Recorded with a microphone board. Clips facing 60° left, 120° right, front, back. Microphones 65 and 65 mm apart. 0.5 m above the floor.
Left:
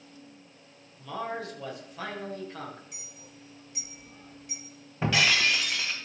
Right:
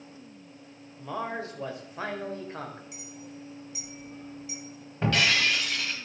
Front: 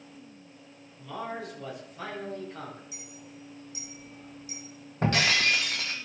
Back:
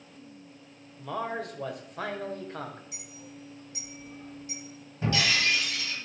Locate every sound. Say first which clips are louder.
1.0 s a man speaking: right 1 dB, back 3 dB; 175° right, 1.6 m
2.9 s a clink: right 7 dB, even; 150° left, 1.6 m
5.0 s breaking glass: even, front 2 dB; 25° right, 1.5 m